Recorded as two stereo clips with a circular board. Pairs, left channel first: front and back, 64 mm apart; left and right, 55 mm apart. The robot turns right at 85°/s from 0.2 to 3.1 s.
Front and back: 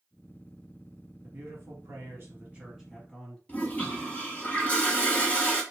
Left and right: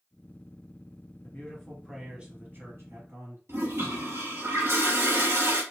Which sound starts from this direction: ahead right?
A toilet flushing, at 3.5 s.